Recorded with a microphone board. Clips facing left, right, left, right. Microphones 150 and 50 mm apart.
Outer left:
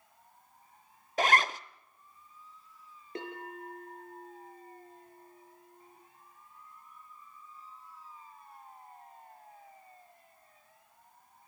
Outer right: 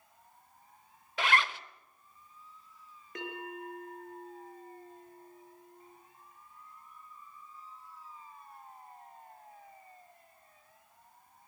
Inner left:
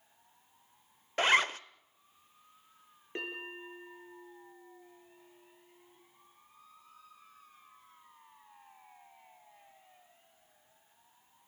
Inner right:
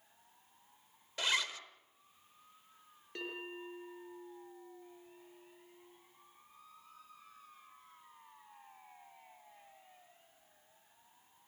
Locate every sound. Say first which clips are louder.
1.2 s a zipper: outer left 3 dB, inner left 9 dB; 40° left (ahead or behind), 0.7 m
3.1 s a bell: even, inner left 3 dB; 30° left (ahead or behind), 6 m